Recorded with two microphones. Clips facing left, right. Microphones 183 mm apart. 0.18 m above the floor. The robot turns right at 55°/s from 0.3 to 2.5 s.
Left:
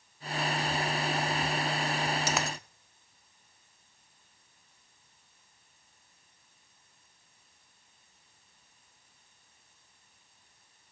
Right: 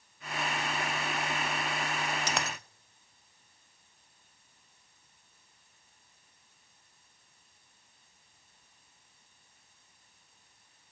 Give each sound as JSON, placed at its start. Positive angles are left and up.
{"t": 2.3, "sound": "a dropped coin", "side_deg": 10, "distance_m": 0.6}